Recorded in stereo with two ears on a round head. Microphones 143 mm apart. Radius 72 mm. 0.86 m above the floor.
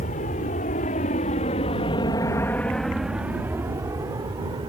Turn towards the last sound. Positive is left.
turn(degrees=-25)  # may be behind; listen again after turning